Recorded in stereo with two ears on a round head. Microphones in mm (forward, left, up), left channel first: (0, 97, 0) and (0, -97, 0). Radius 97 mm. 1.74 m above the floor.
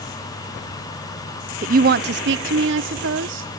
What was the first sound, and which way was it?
A woman speaking, 35° right (ahead or behind).